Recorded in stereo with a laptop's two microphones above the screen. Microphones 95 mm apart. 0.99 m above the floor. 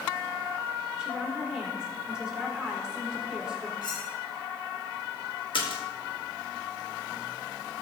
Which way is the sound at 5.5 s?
60° left (ahead or behind).